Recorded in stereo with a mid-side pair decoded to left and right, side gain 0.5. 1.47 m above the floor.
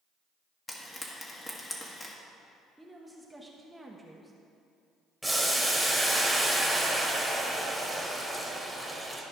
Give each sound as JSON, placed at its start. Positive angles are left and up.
{"t": 0.7, "sound": "frying", "azimuth_deg": 25, "distance_m": 1.7}
{"t": 2.8, "sound": "a woman speaking", "azimuth_deg": -10, "distance_m": 1.1}
{"t": 5.2, "sound": "boiling", "azimuth_deg": 0, "distance_m": 1.8}